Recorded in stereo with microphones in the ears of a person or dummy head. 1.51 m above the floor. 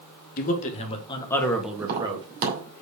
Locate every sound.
0.4 s a man speaking: 45° left (ahead or behind), 2 m; by 2.2 s 30° right (ahead or behind), 1.6 m
1.8 s tapping: 55° right (ahead or behind), 2.5 m